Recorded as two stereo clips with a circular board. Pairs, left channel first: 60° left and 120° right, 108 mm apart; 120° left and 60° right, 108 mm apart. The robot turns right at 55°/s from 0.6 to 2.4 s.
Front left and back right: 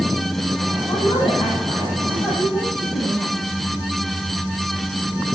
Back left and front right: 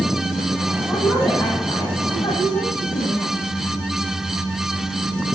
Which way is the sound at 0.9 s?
40° left.